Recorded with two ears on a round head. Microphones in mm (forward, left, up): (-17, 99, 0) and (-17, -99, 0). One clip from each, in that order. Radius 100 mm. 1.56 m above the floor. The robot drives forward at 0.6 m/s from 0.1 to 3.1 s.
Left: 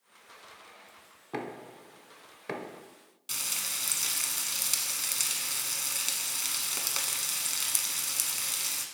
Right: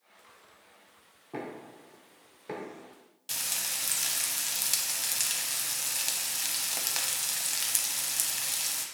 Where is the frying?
5° right (ahead or behind), 0.6 m.